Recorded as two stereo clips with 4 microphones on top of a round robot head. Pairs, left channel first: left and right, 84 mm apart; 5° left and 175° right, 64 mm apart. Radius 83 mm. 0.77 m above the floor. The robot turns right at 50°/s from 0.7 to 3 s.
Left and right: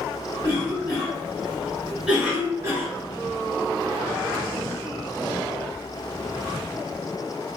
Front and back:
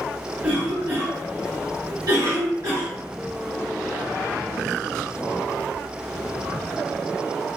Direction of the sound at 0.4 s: 120° left.